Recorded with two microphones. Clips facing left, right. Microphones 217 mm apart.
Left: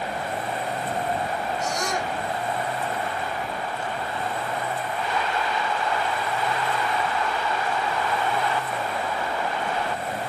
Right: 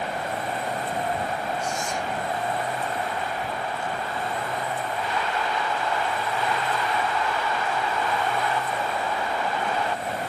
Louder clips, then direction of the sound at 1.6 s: Left 2 dB; 85° left.